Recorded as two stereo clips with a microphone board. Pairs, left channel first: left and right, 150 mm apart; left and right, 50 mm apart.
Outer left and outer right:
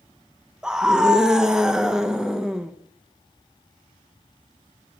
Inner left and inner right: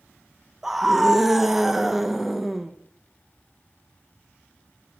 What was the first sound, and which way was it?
A scream, 5° right (ahead or behind).